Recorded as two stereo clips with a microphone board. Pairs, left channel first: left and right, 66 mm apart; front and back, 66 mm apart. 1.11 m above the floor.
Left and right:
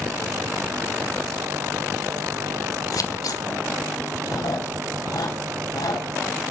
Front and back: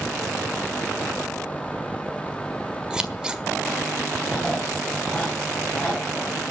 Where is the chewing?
75° left, 5.5 m.